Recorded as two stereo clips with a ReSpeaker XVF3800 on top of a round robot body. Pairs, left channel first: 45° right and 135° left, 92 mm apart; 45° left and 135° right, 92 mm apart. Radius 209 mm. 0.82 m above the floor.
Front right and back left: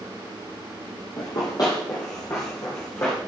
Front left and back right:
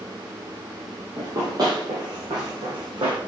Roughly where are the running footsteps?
Right.